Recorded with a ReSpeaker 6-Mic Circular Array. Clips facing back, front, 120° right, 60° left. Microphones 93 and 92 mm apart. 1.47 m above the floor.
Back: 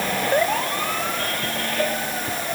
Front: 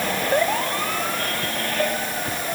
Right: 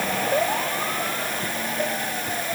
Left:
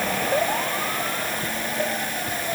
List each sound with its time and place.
Only background noise.